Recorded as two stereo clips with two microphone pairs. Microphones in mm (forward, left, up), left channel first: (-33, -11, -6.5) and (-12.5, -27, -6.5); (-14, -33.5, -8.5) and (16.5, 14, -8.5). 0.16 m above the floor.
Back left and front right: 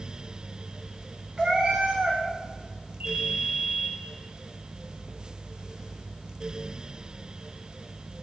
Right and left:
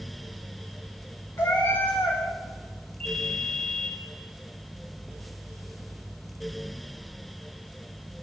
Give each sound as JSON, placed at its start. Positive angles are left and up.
{"t": 1.4, "sound": "a cat meowing", "azimuth_deg": -95, "distance_m": 4.0}
{"t": 3.0, "sound": "a ringtone", "azimuth_deg": -45, "distance_m": 3.5}